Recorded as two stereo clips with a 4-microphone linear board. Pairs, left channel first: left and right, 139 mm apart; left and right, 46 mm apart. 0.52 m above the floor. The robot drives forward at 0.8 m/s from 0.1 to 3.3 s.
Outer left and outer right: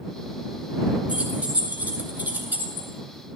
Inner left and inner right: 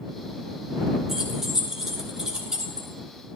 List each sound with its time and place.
1.1 s keys jangling: 10° right (ahead or behind), 3.5 m; by 2.9 s 15° right (ahead or behind), 2 m